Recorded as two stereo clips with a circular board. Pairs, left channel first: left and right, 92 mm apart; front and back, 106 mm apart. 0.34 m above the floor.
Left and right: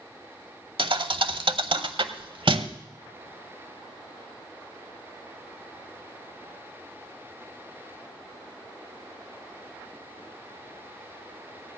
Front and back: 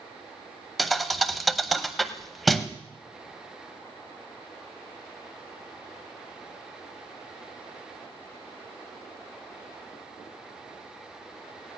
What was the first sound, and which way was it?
A thud, 90° right.